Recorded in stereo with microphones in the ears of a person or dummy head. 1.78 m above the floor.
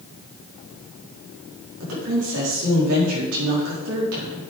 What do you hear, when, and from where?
1.8 s a woman speaking: 70° right (ahead or behind), 5 m